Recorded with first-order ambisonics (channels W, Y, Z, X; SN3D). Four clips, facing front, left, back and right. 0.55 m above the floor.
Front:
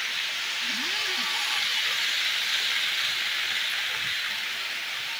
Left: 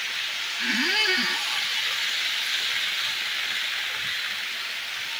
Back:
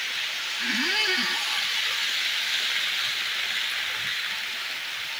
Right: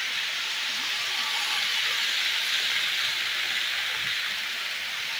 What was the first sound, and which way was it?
A squeak, 120° left.